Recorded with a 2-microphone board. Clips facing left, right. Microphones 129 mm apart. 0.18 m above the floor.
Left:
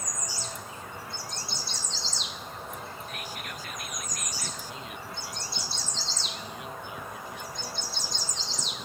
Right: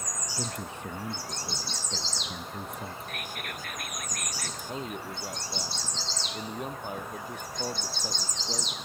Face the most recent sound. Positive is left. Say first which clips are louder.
# right 4 dB
turn(degrees=-45)  # may be behind; listen again after turning